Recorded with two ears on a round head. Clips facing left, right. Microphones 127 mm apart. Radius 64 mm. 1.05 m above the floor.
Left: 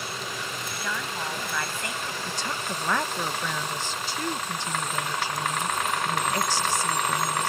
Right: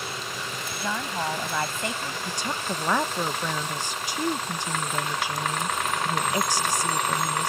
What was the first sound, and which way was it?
A woman speaking, 20° right (ahead or behind).